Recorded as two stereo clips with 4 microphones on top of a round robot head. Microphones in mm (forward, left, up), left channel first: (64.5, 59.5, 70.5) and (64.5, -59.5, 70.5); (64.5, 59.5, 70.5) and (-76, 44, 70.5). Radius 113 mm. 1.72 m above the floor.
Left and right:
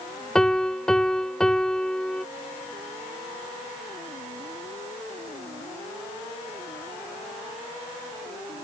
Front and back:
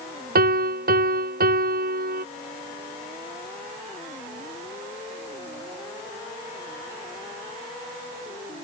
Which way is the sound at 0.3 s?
175° left.